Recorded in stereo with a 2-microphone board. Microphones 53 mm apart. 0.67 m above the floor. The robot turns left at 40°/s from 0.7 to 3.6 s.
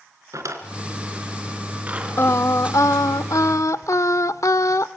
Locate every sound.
0.3 s a drawer: 75° right (ahead or behind), 3 m; by 2.4 s 10° right (ahead or behind), 3 m
2.2 s singing: 130° left, 0.8 m; by 4.9 s 70° left, 0.8 m